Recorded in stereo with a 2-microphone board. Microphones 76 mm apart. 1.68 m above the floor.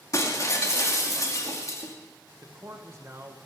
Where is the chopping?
No chopping in this recording.